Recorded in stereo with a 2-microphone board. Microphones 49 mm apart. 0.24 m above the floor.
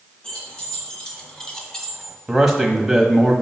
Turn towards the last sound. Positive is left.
turn(degrees=-5)  # may be behind; listen again after turning